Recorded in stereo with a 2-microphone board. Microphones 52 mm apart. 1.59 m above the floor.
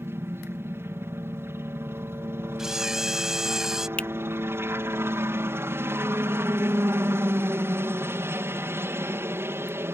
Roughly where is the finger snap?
Left.